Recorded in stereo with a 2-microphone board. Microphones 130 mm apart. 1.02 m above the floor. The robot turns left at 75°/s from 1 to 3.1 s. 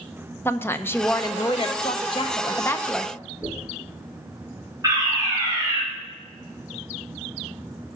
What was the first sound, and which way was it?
A woman speaking, 155° left.